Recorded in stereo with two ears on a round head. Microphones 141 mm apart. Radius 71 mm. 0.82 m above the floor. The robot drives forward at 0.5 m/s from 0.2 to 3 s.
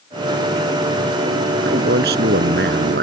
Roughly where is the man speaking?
Right.